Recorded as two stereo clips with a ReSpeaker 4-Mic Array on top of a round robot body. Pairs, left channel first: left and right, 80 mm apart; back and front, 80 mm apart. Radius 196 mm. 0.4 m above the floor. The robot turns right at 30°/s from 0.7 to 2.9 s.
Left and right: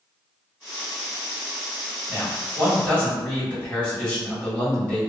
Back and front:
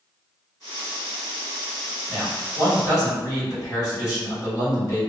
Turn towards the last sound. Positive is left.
turn(degrees=160)